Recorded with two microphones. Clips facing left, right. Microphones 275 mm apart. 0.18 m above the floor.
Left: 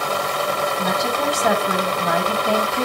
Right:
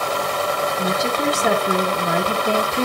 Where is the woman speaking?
20° right (ahead or behind), 1.4 m.